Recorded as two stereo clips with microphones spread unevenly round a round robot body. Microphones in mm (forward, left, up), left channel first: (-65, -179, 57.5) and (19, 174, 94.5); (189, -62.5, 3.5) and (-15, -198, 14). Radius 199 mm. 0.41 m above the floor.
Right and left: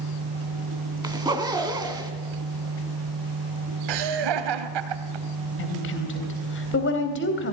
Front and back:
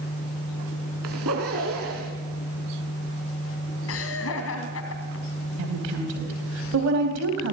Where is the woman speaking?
155° right, 3 m.